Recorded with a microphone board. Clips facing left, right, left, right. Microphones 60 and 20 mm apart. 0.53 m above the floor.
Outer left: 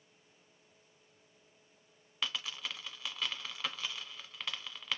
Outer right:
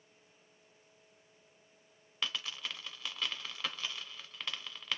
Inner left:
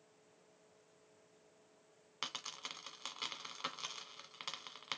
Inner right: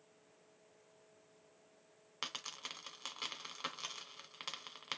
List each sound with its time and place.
2.2 s a dropped coin: 5° right (ahead or behind), 0.9 m